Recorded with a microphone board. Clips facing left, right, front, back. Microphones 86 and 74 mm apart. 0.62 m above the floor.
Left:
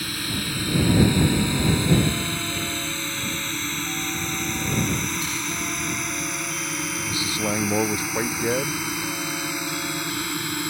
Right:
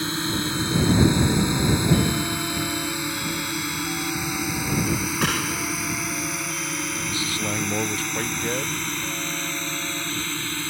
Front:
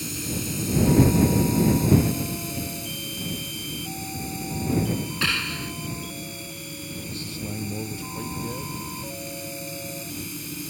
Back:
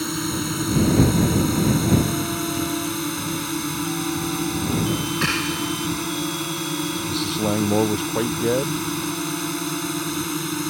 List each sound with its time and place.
0.0 s a drone: 155° right; by 10.7 s 165° left
5.2 s a gunshot: 110° right
7.1 s a man speaking: 160° left